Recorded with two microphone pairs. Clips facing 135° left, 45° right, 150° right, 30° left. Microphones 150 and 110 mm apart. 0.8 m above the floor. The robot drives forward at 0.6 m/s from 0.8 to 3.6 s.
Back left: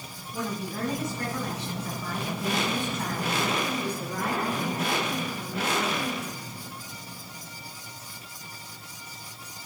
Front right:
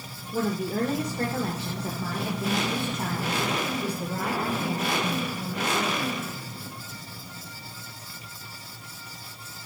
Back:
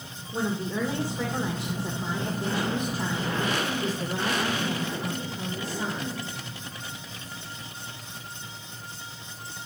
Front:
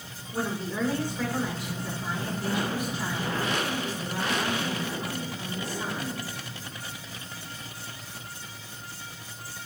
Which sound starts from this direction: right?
A woman speaking, at 0.3 s.